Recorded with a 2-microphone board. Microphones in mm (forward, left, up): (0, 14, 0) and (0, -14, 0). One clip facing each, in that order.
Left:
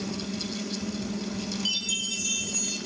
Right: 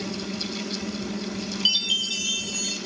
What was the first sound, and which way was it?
A chime, 45° right (ahead or behind).